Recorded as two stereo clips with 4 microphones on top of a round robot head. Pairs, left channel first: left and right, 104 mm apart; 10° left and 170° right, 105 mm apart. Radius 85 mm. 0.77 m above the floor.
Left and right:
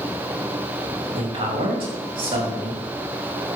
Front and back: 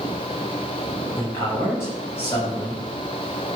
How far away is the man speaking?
About 6 m.